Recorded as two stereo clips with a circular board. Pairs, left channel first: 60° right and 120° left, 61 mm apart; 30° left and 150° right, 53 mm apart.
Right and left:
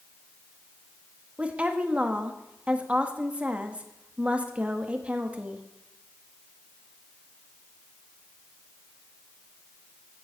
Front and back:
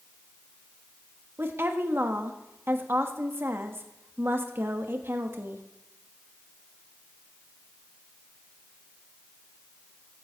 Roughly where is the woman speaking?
Behind.